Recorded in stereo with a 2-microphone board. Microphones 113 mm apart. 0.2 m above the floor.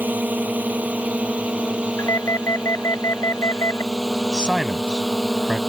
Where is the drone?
15° right (ahead or behind); by 5.7 s centre (ahead or behind).